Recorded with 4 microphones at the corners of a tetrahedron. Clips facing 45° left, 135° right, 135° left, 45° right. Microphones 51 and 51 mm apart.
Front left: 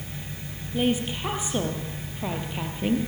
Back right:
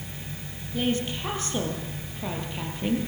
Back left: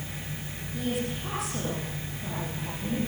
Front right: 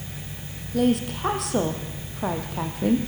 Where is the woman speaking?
30° right, 4.5 m.